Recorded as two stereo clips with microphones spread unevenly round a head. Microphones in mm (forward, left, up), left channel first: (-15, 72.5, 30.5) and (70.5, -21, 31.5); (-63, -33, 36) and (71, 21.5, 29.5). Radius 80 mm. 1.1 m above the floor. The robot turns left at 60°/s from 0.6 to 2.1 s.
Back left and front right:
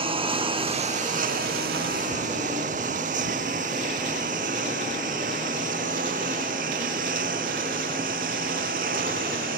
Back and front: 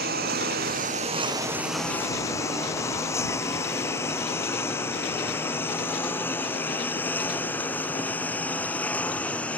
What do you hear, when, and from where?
0.0 s a lawn mower: straight ahead; by 9.6 s 75° right